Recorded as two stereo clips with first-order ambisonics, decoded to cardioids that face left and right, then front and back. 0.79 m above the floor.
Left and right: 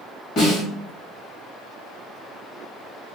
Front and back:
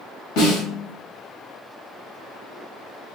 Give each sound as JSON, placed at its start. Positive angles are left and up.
{"t": 0.4, "sound": "a snare drum", "azimuth_deg": 35, "distance_m": 1.6}